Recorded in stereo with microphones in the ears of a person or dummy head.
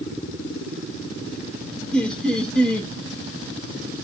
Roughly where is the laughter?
Centre.